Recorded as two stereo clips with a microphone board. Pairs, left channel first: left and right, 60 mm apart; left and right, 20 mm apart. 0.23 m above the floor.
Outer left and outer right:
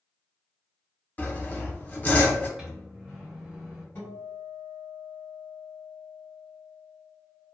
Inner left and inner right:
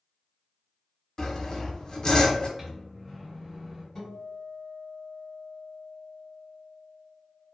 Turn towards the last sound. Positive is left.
turn(degrees=35)  # may be behind; listen again after turning